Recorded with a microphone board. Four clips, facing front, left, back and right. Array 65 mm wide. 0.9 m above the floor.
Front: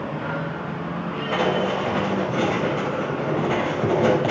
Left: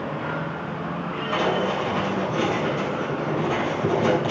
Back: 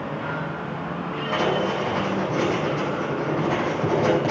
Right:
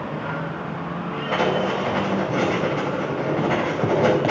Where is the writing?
70° right, 4.5 m.